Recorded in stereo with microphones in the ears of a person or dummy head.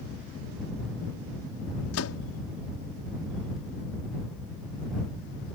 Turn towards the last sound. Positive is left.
turn(degrees=75)  # may be behind; listen again after turning